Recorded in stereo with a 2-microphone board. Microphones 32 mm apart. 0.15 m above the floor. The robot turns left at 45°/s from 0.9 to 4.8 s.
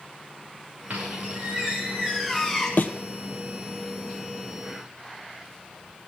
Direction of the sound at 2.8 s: 75° left (ahead or behind).